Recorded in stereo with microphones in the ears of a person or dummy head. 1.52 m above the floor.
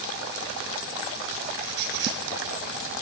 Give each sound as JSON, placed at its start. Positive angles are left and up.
{"t": 1.6, "sound": "a squeak", "side_deg": -65, "distance_m": 3.0}